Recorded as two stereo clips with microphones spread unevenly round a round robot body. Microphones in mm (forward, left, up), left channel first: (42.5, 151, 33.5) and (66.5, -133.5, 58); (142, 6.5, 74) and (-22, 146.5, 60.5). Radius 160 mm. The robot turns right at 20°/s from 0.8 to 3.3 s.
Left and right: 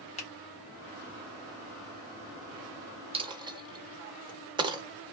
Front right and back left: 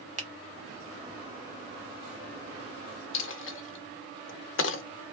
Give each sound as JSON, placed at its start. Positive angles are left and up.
{"t": 0.2, "sound": "a finger snap", "azimuth_deg": 135, "distance_m": 0.8}
{"t": 3.1, "sound": "a dropped coin", "azimuth_deg": -15, "distance_m": 0.6}